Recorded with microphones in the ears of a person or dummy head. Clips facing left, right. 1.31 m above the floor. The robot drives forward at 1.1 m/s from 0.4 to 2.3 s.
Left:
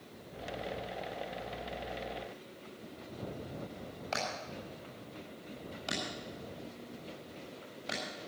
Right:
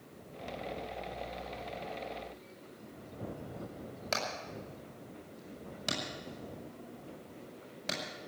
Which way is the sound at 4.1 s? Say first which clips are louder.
Even; 75° right (ahead or behind).